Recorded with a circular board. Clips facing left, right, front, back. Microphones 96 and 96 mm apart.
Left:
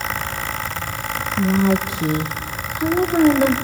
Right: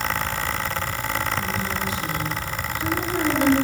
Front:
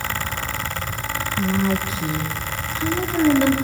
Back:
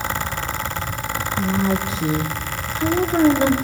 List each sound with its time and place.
1.4 s a woman speaking: 100° left, 0.9 m; by 3.6 s 135° left, 1.9 m